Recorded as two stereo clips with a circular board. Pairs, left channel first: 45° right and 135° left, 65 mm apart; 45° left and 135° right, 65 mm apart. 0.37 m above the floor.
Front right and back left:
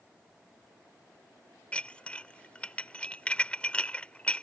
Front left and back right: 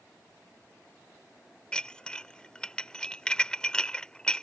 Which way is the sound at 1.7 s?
5° right.